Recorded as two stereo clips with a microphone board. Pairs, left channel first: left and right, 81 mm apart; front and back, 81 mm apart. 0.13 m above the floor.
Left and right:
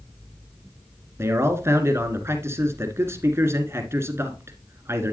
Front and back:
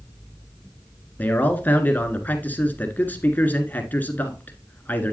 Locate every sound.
1.2 s a man speaking: 55° right, 1.6 m